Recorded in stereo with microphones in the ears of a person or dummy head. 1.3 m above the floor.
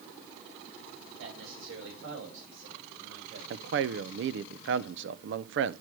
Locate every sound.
1.2 s a man speaking: 80° right, 5.5 m; by 3.4 s 75° right (ahead or behind), 6.5 m
3.5 s a man speaking: 70° right (ahead or behind), 0.7 m